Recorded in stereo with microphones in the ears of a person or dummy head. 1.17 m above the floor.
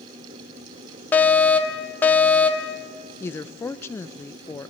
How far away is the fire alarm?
About 1.0 m.